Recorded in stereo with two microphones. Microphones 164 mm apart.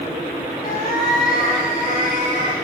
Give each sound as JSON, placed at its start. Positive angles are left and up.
{"t": 0.6, "sound": "a cat meowing", "side_deg": 50, "distance_m": 1.3}